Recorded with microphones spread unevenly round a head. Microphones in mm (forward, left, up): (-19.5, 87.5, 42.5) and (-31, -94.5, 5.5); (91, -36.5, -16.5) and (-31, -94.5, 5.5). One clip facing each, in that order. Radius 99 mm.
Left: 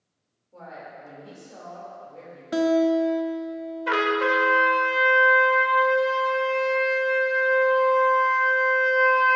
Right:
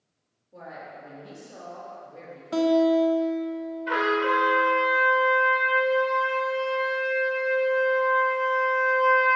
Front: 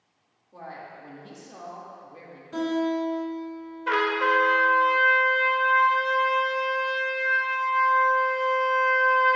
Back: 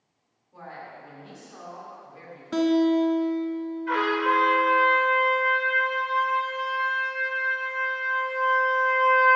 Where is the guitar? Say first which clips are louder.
Even, back 5 dB; 165° left, 0.6 m.